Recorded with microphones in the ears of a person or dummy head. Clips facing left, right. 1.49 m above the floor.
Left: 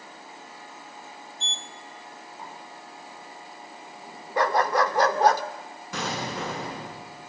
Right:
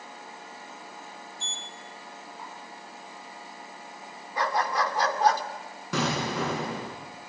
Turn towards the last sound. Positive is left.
turn(degrees=-65)  # may be behind; listen again after turning